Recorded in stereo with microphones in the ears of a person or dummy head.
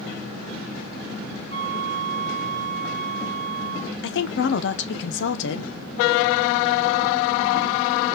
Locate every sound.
1.5 s a flute: 35° left (ahead or behind), 2 m
4.0 s a woman speaking: 60° left (ahead or behind), 1.0 m